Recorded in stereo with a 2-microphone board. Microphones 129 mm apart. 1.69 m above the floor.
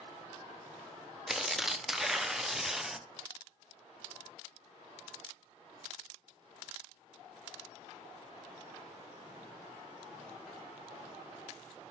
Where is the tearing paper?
5° right (ahead or behind), 0.6 m.